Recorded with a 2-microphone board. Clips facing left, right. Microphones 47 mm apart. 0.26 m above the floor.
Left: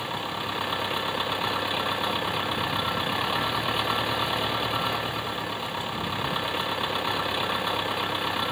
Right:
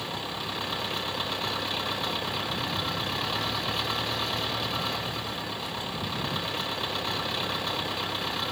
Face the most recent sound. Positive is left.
turn(degrees=15)  # may be behind; listen again after turning